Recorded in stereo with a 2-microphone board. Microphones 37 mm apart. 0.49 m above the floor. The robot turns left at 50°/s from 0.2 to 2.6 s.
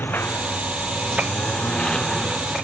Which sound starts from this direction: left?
A lawn mower, at 0.0 s.